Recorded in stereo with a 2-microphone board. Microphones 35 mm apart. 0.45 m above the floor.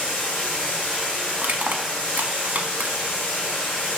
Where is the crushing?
70° right (ahead or behind), 0.6 m.